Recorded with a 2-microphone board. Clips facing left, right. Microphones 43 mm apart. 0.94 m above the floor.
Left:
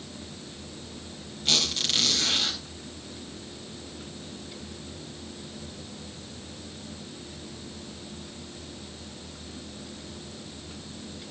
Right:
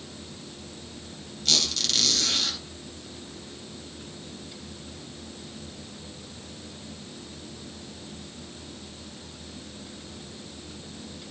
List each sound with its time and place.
1.4 s a squeak: 25° left (ahead or behind), 3.5 m